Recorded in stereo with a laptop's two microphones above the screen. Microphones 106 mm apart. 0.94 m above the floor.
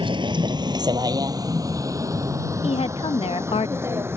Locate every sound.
0.0 s a vehicle: 50° right (ahead or behind); by 4.2 s 20° right (ahead or behind)
2.6 s a woman speaking: 60° left (ahead or behind)